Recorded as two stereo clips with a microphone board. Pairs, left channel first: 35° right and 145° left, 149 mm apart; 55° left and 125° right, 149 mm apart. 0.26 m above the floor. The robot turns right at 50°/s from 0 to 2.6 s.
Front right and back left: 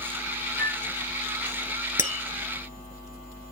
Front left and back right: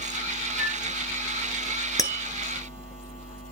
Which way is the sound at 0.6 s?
135° left.